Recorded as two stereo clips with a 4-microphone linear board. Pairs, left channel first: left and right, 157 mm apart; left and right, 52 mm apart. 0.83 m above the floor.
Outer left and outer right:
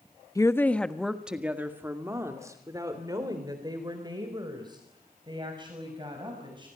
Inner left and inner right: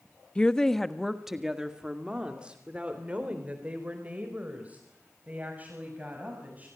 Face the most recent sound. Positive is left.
turn(degrees=-30)  # may be behind; listen again after turning